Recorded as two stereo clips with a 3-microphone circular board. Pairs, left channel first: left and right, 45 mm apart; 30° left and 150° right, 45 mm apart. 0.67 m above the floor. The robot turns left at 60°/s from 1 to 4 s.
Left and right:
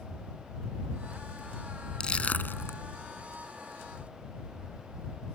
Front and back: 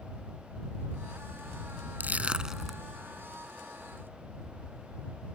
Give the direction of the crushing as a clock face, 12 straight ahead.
7 o'clock.